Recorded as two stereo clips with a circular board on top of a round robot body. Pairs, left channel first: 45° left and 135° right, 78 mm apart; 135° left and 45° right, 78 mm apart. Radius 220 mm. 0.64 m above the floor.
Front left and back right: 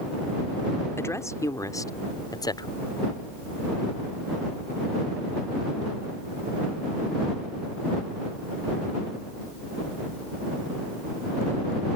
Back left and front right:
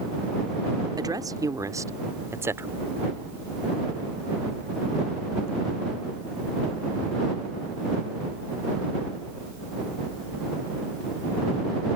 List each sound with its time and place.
1.0 s a woman speaking: 10° right; by 2.7 s 15° left